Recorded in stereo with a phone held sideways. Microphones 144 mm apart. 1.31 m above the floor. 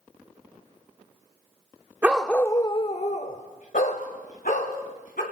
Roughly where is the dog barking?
Centre.